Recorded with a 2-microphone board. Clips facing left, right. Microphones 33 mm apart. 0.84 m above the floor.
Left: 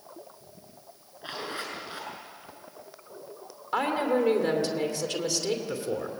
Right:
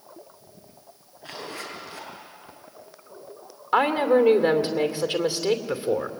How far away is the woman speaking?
About 2.5 m.